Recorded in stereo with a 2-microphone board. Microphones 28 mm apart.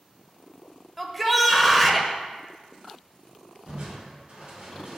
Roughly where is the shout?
Centre.